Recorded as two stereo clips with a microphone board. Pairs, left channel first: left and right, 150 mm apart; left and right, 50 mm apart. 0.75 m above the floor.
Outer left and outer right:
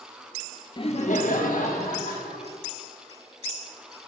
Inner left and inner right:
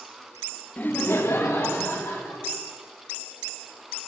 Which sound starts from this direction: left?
Laughter, at 0.8 s.